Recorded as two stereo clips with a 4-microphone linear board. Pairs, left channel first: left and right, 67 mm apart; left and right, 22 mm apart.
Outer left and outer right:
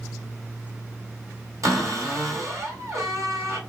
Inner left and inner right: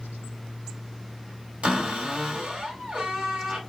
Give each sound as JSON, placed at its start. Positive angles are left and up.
{"t": 1.6, "sound": "a cupboard door", "side_deg": -60, "distance_m": 1.9}